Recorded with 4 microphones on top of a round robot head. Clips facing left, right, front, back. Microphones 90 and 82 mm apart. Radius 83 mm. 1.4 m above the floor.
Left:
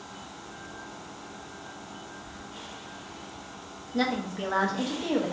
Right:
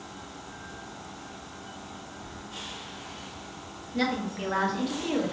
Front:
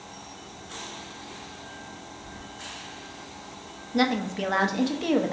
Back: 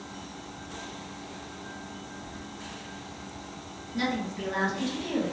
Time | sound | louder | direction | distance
2.2 | keys jangling | right 1 dB, back 1 dB | 165° left | 1.2 m
3.9 | a woman speaking | left 1 dB, front 6 dB | 25° left | 0.7 m